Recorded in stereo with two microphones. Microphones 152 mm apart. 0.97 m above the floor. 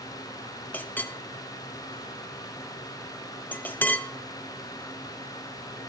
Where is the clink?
10° left (ahead or behind), 0.5 m.